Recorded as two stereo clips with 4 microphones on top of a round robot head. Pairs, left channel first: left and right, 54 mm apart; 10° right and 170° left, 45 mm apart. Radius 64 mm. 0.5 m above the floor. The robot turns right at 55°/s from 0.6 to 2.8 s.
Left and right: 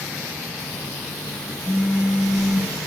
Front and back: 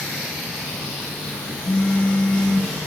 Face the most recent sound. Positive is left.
turn(degrees=85)